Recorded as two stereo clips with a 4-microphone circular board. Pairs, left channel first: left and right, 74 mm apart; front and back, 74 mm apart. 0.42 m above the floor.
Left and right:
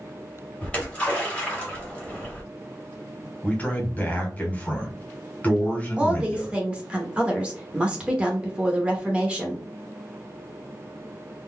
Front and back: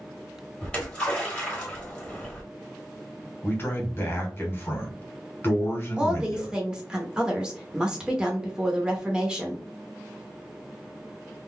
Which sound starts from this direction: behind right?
A woman speaking, at 6.0 s.